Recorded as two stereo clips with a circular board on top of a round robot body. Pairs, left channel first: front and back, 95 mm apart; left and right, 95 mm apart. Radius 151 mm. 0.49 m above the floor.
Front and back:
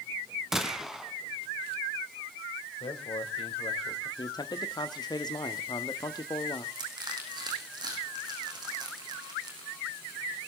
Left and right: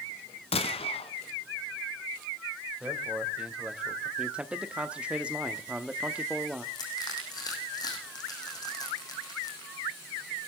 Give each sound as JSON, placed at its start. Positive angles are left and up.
{"t": 0.5, "sound": "a gunshot", "azimuth_deg": 95, "distance_m": 1.9}
{"t": 2.8, "sound": "a man speaking", "azimuth_deg": -10, "distance_m": 3.0}
{"t": 4.2, "sound": "a man speaking", "azimuth_deg": -15, "distance_m": 1.3}
{"t": 6.8, "sound": "crushing", "azimuth_deg": 135, "distance_m": 6.0}